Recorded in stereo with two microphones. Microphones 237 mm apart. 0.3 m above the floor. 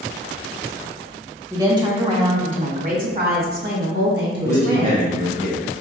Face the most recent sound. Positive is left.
turn(degrees=-35)  # may be behind; listen again after turning